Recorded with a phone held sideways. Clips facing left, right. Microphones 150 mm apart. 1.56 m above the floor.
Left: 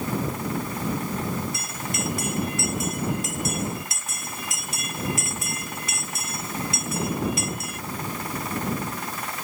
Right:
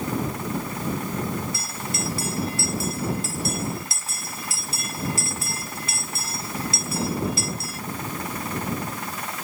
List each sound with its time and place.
1.5 s a bell: 30° right (ahead or behind)